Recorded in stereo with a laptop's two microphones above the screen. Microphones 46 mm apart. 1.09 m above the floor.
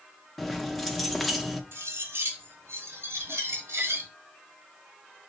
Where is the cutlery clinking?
75° right (ahead or behind), 1.2 m.